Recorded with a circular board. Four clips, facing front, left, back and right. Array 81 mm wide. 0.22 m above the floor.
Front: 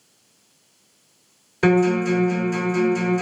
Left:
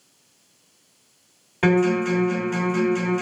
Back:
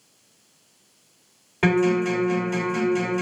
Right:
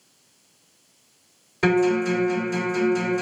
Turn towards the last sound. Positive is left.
turn(degrees=135)